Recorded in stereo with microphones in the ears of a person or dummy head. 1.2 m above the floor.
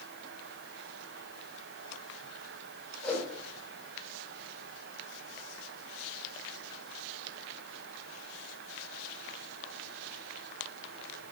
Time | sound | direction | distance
3.0 | a whoosh | 5° left (ahead or behind) | 4.5 m